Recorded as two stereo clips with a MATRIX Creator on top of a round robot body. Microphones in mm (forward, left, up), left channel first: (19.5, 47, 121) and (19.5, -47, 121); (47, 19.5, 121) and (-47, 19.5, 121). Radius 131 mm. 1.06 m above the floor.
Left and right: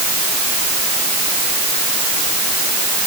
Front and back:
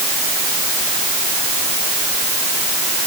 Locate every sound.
Only background noise.